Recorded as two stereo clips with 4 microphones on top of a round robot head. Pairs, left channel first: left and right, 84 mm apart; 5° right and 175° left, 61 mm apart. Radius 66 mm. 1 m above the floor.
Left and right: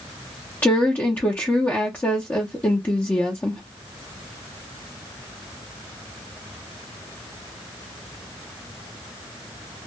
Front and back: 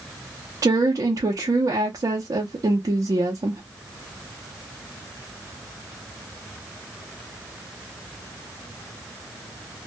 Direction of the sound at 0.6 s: 155° left.